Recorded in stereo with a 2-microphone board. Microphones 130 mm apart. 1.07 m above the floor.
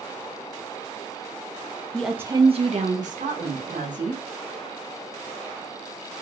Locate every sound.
1.9 s a woman speaking: 10° left (ahead or behind), 0.6 m; by 4.2 s 80° right, 2.0 m